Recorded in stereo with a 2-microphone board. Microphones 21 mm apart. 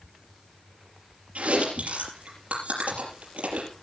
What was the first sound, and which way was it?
Chewing, 80° right.